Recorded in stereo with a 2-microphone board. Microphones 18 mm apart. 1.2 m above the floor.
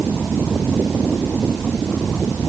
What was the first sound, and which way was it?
Only background noise.